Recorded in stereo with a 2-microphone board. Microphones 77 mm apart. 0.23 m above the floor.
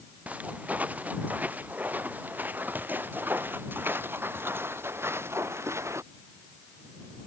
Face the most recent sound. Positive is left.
turn(degrees=-40)  # may be behind; listen again after turning